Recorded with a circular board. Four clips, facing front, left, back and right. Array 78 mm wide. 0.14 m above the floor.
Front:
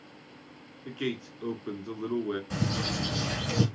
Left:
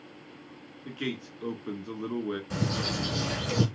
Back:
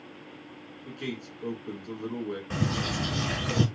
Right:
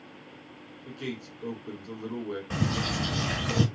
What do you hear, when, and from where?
0.8 s a man speaking: 50° left, 1.3 m
2.5 s a bird: 130° right, 1.6 m